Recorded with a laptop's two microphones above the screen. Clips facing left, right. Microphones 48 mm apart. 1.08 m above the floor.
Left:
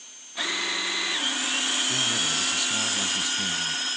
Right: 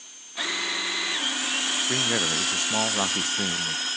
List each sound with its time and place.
1.9 s a man speaking: 50° right (ahead or behind), 0.6 m